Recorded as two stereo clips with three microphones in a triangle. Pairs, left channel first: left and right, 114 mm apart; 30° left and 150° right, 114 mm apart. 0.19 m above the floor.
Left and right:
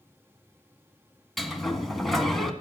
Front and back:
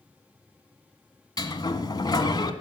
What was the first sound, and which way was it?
A sliding door, straight ahead.